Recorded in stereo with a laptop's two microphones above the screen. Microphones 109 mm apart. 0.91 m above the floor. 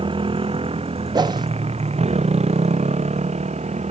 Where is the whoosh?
40° right (ahead or behind).